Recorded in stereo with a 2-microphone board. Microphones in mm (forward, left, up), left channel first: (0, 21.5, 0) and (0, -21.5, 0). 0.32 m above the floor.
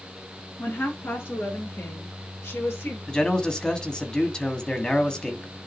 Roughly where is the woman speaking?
Left.